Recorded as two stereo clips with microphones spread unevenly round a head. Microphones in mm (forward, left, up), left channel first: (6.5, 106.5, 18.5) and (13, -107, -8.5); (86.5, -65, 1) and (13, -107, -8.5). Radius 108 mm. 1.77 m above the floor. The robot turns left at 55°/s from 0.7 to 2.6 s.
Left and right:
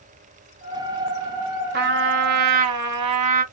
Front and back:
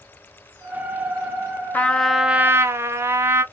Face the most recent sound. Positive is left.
turn(degrees=-90)